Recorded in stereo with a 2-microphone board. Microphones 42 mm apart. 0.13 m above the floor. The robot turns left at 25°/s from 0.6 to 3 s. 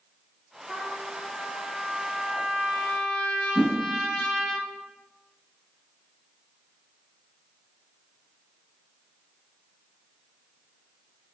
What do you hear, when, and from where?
0.7 s a trumpet: 25° right (ahead or behind), 1.1 m; by 4.5 s 10° right (ahead or behind), 1.1 m
3.5 s a whoosh: 10° left (ahead or behind), 1.9 m